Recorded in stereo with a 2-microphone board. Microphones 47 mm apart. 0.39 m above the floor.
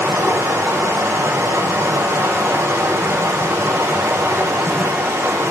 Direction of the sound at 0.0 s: 75° right (ahead or behind).